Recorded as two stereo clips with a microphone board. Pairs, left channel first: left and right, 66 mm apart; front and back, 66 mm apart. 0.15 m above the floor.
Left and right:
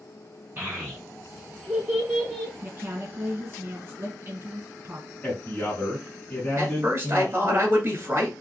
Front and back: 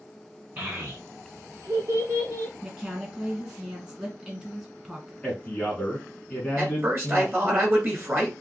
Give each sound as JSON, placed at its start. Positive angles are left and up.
{"t": 0.6, "sound": "a child speaking", "azimuth_deg": -135, "distance_m": 1.6}
{"t": 2.6, "sound": "a woman speaking", "azimuth_deg": -110, "distance_m": 1.8}
{"t": 5.2, "sound": "a man speaking", "azimuth_deg": 50, "distance_m": 1.7}
{"t": 6.6, "sound": "a man speaking", "azimuth_deg": -135, "distance_m": 1.8}